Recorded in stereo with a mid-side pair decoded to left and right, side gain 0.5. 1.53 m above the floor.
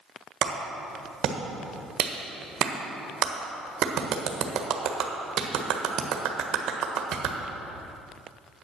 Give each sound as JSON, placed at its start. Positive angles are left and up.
{"t": 0.4, "sound": "a clap", "azimuth_deg": -65, "distance_m": 1.3}